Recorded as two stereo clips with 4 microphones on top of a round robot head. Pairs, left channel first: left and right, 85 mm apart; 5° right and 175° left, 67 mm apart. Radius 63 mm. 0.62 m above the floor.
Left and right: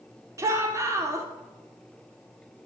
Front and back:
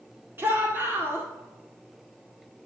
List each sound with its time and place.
0.4 s a shout: 130° right, 1.9 m